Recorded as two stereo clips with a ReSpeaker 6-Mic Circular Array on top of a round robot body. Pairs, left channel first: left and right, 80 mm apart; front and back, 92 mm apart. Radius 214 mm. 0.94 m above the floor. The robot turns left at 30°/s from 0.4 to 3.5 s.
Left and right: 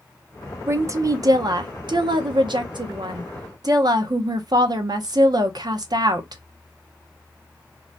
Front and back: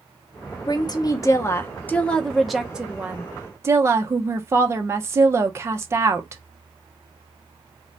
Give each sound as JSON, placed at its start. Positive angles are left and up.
{"t": 0.7, "sound": "a woman speaking", "azimuth_deg": -35, "distance_m": 0.7}